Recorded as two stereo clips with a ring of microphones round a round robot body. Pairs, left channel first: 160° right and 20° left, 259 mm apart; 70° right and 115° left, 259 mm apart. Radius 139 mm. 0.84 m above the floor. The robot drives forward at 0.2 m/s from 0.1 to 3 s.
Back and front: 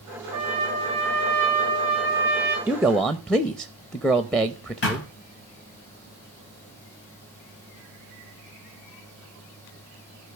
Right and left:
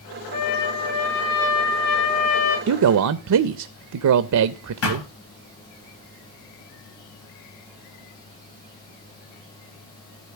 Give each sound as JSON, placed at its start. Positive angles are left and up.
{"t": 0.3, "sound": "a trumpet", "azimuth_deg": -50, "distance_m": 7.5}
{"t": 2.7, "sound": "a man speaking", "azimuth_deg": 105, "distance_m": 0.5}
{"t": 4.8, "sound": "a thud", "azimuth_deg": -105, "distance_m": 3.5}